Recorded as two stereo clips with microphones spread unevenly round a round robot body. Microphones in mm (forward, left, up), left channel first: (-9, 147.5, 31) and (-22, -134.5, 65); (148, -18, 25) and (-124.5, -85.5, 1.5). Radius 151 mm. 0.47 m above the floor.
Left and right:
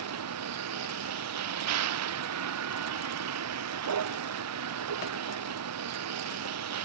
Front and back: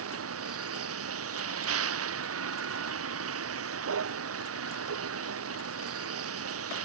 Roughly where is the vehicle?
Behind right.